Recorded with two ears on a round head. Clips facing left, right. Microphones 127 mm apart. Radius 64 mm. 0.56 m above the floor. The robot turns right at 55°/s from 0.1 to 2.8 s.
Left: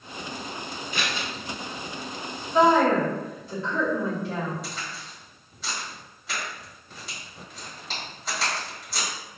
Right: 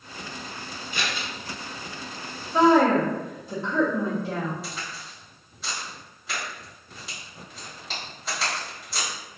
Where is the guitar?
No guitar in this recording.